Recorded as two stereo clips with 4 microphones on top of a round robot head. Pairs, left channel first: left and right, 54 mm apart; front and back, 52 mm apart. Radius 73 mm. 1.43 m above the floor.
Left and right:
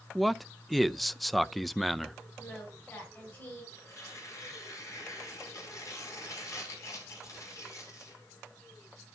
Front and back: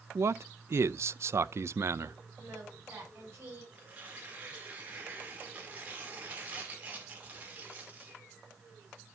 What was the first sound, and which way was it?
A man speaking, straight behind.